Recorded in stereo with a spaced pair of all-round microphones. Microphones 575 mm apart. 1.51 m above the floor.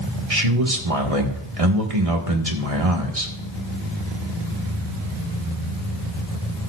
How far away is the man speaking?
About 1.8 m.